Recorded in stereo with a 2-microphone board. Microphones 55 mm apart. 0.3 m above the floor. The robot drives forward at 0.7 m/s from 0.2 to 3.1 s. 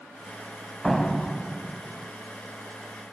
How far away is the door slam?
About 1.1 m.